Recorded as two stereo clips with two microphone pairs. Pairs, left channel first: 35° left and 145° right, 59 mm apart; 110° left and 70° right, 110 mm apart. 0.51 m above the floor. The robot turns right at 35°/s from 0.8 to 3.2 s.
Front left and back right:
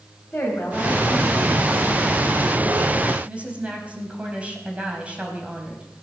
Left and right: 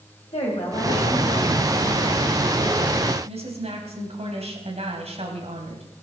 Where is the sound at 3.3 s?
75° right, 3.5 m.